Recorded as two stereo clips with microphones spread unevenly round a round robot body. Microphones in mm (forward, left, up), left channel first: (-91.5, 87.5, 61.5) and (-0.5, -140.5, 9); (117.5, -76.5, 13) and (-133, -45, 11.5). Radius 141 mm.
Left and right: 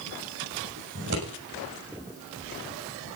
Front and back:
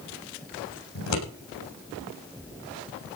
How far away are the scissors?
About 7.5 m.